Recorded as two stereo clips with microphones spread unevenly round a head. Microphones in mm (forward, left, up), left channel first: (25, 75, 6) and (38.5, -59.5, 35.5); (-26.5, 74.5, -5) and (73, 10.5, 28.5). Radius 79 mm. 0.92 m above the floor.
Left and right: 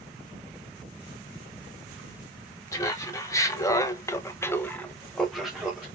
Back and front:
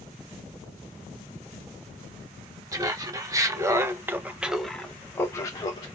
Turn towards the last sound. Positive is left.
turn(degrees=-175)